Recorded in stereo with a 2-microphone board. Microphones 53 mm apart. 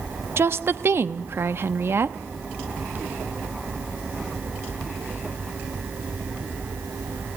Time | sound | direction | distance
0.4 | a woman speaking | 50° right (ahead or behind) | 0.9 m